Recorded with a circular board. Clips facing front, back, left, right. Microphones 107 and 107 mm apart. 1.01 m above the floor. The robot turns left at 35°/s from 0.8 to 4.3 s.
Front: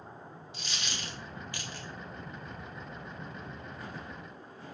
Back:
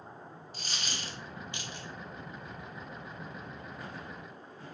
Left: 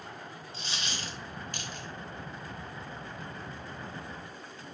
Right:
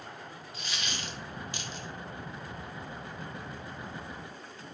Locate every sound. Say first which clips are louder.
0.5 s a dropped coin: even, even; 145° left, 0.6 m; by 1.9 s 110° left, 0.6 m